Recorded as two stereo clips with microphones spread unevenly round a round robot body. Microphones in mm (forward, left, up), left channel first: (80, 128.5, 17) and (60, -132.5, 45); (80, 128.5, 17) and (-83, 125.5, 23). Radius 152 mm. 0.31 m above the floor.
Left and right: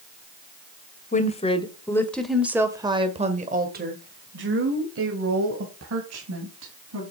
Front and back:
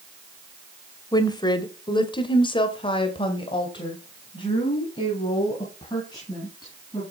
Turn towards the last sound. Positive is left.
turn(degrees=-70)